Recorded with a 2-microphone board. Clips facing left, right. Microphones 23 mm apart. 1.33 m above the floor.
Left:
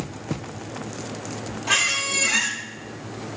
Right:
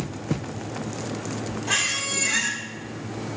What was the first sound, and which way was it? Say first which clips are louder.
A squeak: left 4 dB; 35° left (ahead or behind).